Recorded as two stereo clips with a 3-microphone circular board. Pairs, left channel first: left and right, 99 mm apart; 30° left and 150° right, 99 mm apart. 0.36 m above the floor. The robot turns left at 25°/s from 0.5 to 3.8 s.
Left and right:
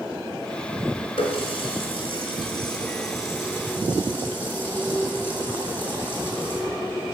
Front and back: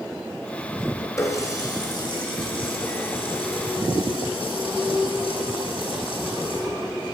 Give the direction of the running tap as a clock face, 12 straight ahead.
9 o'clock.